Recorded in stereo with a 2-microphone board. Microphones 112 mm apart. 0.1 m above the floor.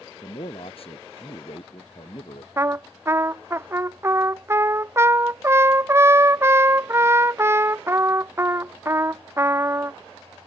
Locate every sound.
0.2 s a man speaking: 60° left (ahead or behind)
2.6 s a trumpet: 25° right (ahead or behind)